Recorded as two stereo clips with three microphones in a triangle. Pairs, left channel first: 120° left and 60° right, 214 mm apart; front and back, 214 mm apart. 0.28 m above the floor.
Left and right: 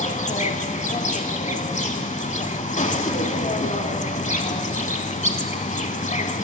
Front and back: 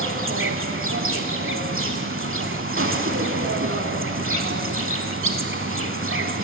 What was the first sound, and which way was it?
An insect, 175° left.